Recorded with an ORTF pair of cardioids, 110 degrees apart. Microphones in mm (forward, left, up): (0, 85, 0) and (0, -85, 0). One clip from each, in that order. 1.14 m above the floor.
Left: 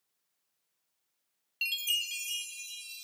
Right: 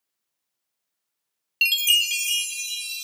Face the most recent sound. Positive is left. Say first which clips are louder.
# right 12 dB
turn(degrees=-60)